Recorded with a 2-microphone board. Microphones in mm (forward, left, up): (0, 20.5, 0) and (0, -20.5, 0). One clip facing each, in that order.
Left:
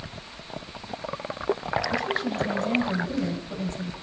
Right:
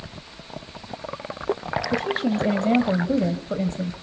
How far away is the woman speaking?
About 1.8 m.